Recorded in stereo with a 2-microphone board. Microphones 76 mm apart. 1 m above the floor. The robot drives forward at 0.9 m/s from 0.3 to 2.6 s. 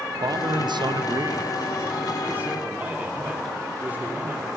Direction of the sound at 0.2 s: 60° right (ahead or behind).